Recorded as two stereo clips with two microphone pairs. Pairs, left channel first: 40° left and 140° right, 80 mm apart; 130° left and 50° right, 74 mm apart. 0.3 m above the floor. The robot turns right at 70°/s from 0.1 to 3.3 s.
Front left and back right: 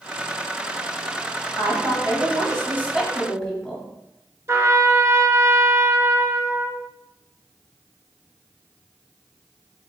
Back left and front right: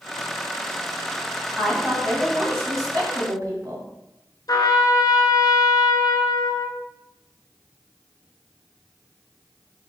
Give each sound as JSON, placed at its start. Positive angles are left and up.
{"t": 1.6, "sound": "a woman speaking", "azimuth_deg": -160, "distance_m": 1.9}
{"t": 4.5, "sound": "a trumpet", "azimuth_deg": 160, "distance_m": 0.5}